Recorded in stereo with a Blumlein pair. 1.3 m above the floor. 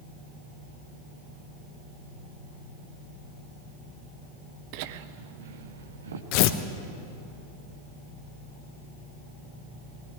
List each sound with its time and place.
4.7 s laughter: 45° right, 0.8 m; by 6.2 s 65° right, 1.8 m
6.3 s tearing paper: 45° left, 1.0 m